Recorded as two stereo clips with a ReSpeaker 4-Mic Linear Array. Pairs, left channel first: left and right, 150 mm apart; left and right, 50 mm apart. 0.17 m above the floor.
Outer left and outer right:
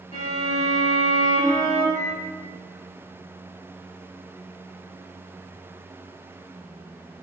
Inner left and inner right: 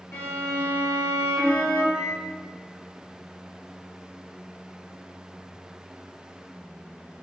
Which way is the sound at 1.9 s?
20° right (ahead or behind).